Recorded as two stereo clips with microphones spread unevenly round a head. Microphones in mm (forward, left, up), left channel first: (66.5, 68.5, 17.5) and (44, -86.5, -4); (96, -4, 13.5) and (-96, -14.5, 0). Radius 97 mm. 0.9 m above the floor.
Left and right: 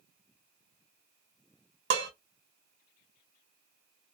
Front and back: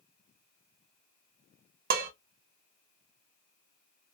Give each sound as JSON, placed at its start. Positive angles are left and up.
{"t": 1.9, "sound": "dishes clattering", "azimuth_deg": -130, "distance_m": 0.5}